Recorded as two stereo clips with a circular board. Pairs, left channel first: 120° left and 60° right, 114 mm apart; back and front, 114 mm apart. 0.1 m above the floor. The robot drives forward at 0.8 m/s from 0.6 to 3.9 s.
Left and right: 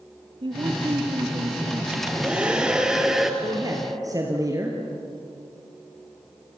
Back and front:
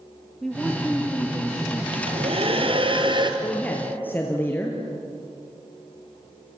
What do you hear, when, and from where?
0.4 s a woman speaking: 90° right, 3 m; by 1.8 s 110° right, 3 m
1.9 s a hair dryer: 15° left, 3 m; by 3.3 s 25° left, 2.5 m
3.4 s a man speaking: 100° right, 3 m; by 4.8 s 110° right, 3 m